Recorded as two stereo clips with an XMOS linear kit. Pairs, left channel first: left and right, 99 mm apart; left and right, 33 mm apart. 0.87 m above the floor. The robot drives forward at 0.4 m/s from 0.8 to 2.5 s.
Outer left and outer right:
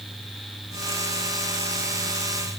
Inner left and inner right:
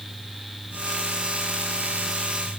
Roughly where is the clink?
I don't hear a clink.